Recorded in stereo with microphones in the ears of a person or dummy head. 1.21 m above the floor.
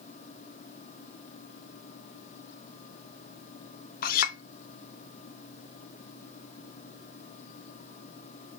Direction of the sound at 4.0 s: 50° left (ahead or behind).